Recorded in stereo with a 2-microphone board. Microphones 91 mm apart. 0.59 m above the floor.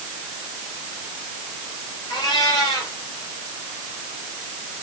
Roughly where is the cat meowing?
Left.